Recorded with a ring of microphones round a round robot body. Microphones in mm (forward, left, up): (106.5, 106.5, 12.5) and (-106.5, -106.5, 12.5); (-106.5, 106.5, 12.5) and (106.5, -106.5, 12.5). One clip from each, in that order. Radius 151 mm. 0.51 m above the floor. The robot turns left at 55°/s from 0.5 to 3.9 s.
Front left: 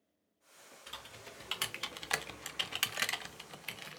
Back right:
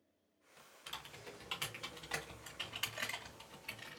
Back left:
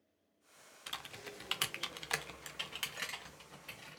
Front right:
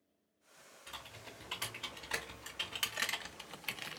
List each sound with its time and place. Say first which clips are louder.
0.9 s typing on a keyboard: even, back left 4 dB; 150° left, 0.6 m; by 4.0 s 15° right, 0.6 m